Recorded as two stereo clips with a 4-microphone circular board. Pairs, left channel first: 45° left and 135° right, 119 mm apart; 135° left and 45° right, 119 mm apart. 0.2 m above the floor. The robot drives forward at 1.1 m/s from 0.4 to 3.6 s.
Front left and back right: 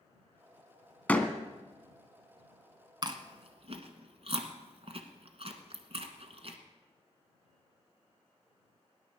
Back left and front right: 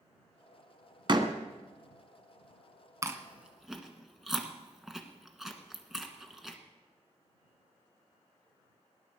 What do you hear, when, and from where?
1.1 s a door slam: 30° right, 1.2 m; by 1.3 s 40° right, 1.1 m
3.0 s chewing: 100° right, 1.2 m; by 6.6 s 130° right, 1.4 m